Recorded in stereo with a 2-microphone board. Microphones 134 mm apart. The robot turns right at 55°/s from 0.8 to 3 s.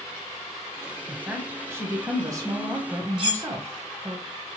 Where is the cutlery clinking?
40° right (ahead or behind), 1.3 m.